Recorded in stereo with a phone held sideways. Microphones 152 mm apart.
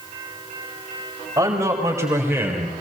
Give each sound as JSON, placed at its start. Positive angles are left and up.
{"t": 1.4, "sound": "a man speaking", "side_deg": -20, "distance_m": 6.0}